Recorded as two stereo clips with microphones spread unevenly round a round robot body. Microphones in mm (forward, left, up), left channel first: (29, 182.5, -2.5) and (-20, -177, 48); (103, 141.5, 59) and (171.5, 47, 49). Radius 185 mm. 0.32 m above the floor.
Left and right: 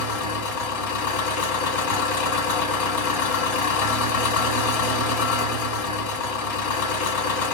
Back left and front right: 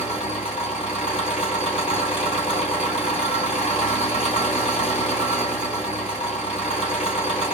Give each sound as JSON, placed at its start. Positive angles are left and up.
{"t": 0.0, "sound": "an engine running", "azimuth_deg": 100, "distance_m": 2.0}